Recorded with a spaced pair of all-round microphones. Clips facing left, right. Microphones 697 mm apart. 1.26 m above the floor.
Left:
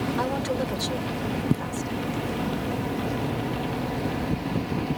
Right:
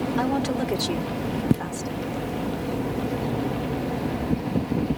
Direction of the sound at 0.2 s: 85° right.